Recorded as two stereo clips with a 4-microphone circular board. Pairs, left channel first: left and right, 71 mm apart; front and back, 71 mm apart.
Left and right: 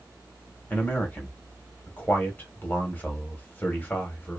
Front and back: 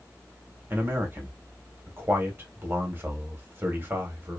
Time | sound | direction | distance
0.7 | a man speaking | 140° left | 1.1 m